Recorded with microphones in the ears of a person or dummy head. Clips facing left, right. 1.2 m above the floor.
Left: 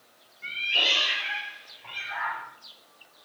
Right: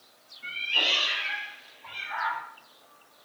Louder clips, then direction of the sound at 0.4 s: Left 1 dB; 25° left (ahead or behind).